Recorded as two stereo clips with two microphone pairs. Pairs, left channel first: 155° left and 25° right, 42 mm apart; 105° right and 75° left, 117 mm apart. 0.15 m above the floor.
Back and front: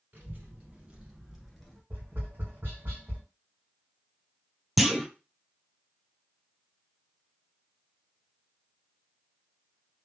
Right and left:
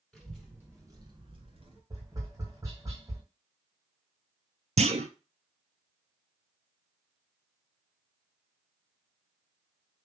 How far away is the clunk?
About 0.5 m.